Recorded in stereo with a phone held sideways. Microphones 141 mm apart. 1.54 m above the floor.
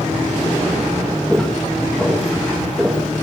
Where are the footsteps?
5° left (ahead or behind), 7.5 m; by 3.2 s centre (ahead or behind), 8 m.